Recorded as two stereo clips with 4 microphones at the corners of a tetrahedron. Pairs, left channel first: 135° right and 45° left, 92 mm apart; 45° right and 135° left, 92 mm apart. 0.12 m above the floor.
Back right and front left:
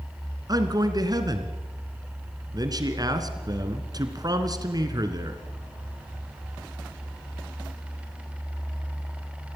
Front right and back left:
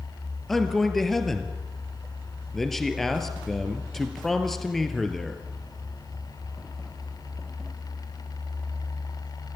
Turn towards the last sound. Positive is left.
turn(degrees=40)